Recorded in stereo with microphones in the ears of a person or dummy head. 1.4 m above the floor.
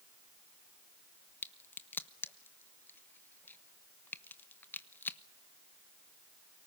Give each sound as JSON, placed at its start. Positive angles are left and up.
{"t": 1.4, "sound": "a crack", "side_deg": 10, "distance_m": 0.9}